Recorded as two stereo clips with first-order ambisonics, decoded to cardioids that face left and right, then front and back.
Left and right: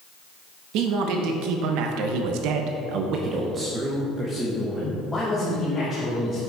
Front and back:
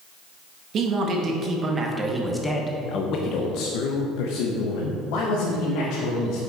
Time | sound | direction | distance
0.7 | a man speaking | 125° right | 1.5 m